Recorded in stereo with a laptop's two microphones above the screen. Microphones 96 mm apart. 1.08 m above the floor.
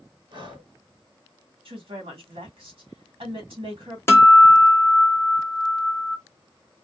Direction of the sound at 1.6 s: 65° right (ahead or behind).